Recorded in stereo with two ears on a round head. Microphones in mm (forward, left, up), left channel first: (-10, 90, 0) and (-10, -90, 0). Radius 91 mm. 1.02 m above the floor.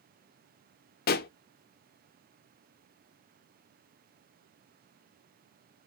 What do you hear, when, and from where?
1.1 s a pop: 50° left (ahead or behind), 0.5 m